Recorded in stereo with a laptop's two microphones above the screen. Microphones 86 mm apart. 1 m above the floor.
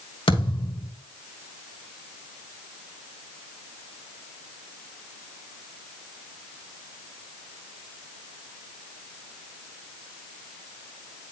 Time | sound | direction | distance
0.3 | a thud | 80° left | 1.8 m